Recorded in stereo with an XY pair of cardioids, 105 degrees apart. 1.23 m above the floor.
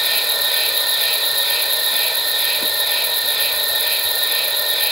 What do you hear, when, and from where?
0.0 s an insect: 15° right, 6 m